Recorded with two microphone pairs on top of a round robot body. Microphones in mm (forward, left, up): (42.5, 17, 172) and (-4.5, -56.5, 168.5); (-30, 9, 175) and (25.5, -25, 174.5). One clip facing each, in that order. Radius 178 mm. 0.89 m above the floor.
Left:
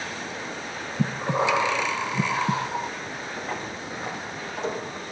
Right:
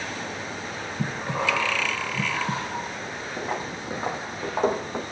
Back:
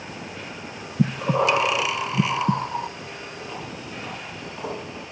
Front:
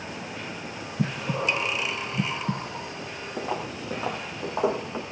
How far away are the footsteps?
About 1.8 m.